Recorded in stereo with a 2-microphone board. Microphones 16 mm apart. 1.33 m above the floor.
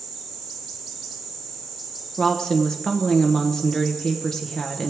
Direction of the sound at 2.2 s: 45° left (ahead or behind).